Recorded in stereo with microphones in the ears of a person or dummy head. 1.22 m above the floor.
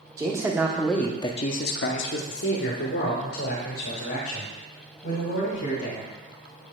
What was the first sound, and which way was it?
A man speaking, 15° right (ahead or behind).